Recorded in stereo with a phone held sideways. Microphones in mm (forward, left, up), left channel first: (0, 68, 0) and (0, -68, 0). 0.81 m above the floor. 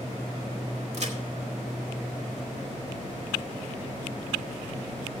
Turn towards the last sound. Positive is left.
turn(degrees=-55)  # may be behind; listen again after turning